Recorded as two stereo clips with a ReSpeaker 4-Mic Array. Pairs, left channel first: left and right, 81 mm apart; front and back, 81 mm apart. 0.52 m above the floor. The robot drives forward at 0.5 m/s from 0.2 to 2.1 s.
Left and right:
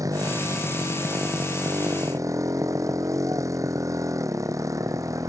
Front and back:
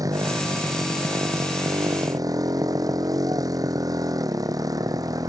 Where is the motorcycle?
135° right; by 5.3 s 140° right.